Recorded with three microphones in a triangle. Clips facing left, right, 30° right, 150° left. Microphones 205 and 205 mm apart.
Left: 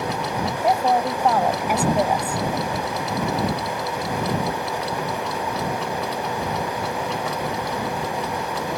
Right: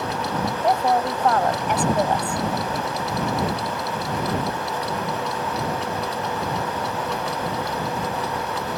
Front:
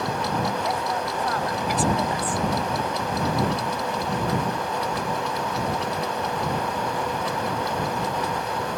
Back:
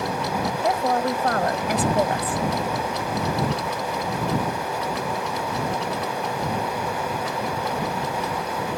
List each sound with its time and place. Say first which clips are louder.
0.6 s a woman speaking: left 1 dB, back 5 dB; 170° left